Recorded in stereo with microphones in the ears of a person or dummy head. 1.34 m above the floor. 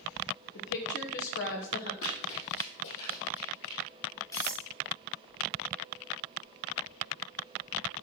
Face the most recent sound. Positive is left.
turn(degrees=20)  # may be behind; listen again after turning